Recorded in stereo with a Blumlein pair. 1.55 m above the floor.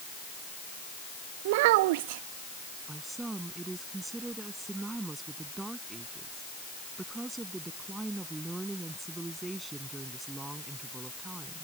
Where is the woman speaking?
10° right.